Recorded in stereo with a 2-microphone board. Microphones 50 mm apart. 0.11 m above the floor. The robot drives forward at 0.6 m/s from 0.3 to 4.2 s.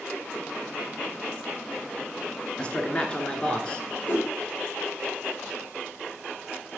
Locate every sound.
2.6 s a man speaking: 20° left (ahead or behind), 1.4 m
4.1 s a whoosh: 30° left (ahead or behind), 4 m